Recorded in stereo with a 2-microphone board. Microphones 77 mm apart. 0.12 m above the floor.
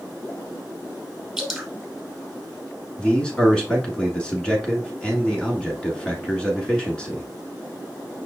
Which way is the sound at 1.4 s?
5° right (ahead or behind).